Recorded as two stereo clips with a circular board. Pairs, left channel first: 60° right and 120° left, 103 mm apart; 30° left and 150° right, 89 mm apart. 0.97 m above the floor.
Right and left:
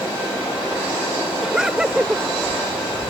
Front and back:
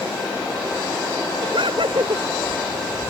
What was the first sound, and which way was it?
Laughter, 155° right.